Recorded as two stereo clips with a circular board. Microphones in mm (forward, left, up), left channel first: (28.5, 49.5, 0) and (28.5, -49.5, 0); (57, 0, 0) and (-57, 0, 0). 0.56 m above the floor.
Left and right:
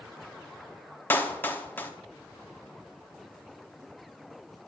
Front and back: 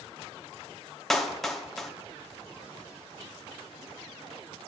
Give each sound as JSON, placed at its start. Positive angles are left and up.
{"t": 1.1, "sound": "a clap", "azimuth_deg": 85, "distance_m": 0.8}